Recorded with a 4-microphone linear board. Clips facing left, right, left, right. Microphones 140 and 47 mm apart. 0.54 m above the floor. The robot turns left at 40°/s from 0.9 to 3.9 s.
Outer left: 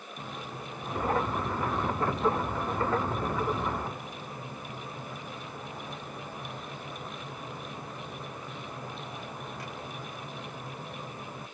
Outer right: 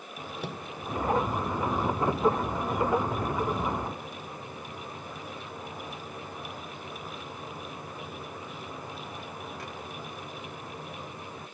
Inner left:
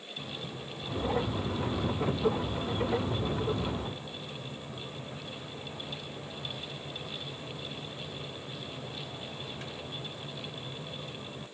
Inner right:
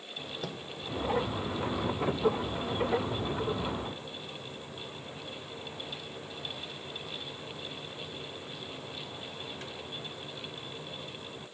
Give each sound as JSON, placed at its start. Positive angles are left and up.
{"t": 0.4, "sound": "a microwave", "side_deg": -75}